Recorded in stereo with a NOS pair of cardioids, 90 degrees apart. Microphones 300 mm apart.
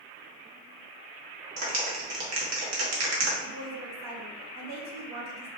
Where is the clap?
60° right, 1.6 m.